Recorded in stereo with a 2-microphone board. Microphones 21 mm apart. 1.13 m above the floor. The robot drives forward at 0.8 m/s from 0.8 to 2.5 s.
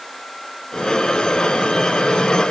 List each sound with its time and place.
Only background noise.